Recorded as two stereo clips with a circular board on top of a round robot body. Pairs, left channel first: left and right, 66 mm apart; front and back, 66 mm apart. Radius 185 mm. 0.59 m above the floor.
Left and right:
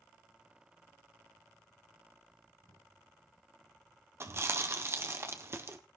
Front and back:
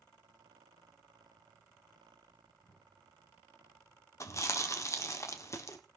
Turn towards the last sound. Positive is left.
turn(degrees=-40)